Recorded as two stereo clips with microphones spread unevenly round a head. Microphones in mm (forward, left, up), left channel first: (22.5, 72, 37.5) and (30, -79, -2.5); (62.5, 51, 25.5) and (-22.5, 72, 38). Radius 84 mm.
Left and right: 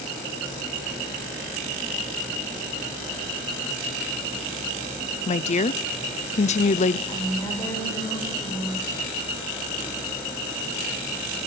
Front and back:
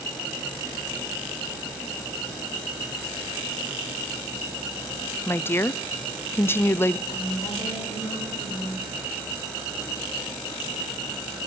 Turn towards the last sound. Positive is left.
turn(degrees=25)